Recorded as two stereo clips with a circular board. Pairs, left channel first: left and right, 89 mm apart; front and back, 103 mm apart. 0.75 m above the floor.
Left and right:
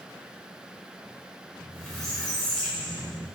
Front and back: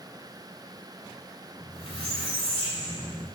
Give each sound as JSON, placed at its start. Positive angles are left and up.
{"t": 1.6, "sound": "a squeak", "azimuth_deg": 5, "distance_m": 2.5}